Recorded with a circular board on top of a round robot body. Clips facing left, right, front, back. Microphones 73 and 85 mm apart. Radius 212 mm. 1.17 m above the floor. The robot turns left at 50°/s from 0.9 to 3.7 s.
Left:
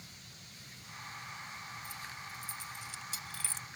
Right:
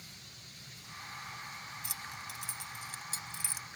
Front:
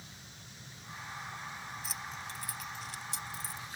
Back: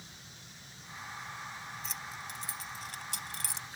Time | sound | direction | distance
1.8 | keys jangling | 85° right | ?